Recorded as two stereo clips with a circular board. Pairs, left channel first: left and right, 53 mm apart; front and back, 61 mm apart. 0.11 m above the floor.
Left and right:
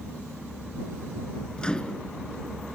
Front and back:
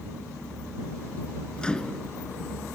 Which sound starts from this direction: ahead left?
A microwave, at 1.6 s.